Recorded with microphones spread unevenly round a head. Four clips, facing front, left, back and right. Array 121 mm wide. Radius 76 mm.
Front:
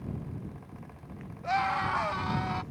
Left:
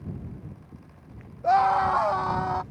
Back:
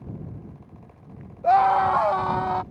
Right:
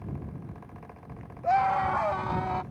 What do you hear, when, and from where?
1.4 s a scream: 175° left; by 2.6 s straight behind